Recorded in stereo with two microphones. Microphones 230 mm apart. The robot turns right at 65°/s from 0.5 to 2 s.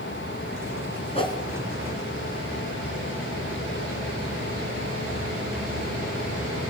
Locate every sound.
1.1 s a whoosh: 25° left (ahead or behind), 2.5 m; by 1.4 s 15° left (ahead or behind), 2.5 m